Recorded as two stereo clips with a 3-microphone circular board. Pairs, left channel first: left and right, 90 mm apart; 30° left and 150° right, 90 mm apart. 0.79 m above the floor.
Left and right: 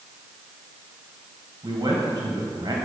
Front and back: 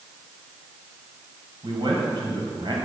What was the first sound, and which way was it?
A man speaking, 125° right.